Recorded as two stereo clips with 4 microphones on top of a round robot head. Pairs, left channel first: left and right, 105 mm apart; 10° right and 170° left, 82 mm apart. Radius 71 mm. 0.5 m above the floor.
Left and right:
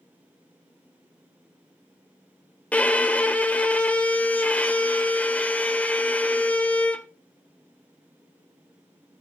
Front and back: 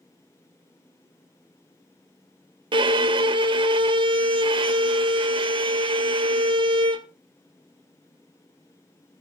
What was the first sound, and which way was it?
A violin, 165° left.